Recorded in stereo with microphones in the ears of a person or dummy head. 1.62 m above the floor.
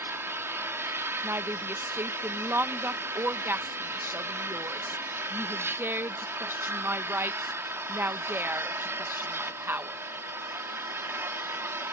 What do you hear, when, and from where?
0.0 s an engine running: 15° right (ahead or behind)
1.2 s a woman speaking: 10° right (ahead or behind)